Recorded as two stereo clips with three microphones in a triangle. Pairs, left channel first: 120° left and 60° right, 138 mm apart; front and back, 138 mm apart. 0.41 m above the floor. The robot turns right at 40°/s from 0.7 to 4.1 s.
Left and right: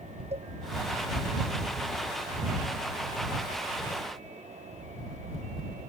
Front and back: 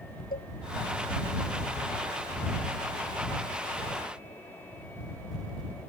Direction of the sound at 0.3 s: 15° right.